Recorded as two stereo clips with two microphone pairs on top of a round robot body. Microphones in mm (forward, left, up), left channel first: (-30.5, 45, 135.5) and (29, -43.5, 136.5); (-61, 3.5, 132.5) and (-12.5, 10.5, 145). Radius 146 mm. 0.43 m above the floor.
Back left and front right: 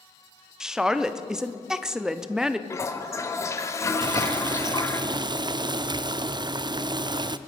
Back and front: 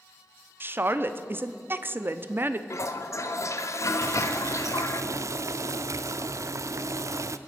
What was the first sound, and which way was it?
A woman speaking, 25° left.